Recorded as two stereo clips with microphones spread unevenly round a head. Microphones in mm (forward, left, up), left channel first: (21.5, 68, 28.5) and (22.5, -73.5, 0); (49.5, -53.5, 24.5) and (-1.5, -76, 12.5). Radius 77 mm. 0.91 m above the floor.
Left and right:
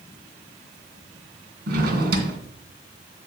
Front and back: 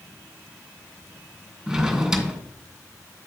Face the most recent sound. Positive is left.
turn(degrees=-70)